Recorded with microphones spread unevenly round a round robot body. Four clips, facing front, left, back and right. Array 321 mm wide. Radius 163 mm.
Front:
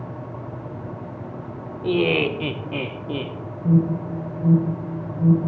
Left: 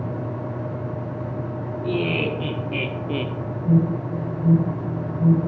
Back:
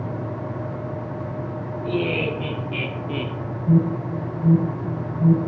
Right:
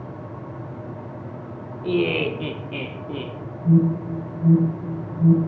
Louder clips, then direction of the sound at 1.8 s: Right 3 dB, front 4 dB; 20° right.